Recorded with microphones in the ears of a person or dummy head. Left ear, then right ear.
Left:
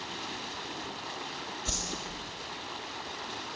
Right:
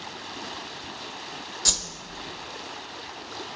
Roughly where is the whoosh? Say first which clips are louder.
Right 10 dB; right.